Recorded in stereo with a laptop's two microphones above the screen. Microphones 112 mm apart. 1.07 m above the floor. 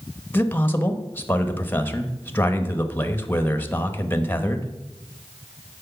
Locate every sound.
0.3 s a man speaking: 20° left (ahead or behind), 1.1 m